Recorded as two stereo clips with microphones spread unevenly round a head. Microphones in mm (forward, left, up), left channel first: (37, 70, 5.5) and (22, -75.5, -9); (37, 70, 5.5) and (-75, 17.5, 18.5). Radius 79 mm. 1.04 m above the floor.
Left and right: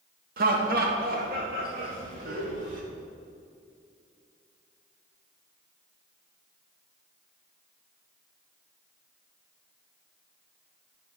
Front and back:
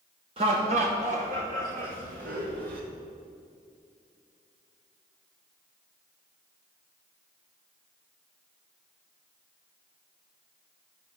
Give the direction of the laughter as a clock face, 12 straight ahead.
3 o'clock.